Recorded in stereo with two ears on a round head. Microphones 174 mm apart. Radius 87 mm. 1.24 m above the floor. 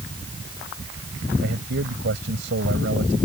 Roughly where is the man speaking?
Right.